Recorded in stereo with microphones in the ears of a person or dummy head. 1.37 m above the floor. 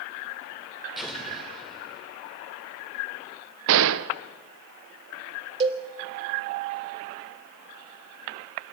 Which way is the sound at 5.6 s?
25° right (ahead or behind).